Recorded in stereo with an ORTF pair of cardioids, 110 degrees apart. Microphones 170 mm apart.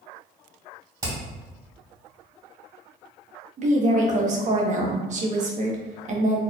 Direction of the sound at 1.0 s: 20° right.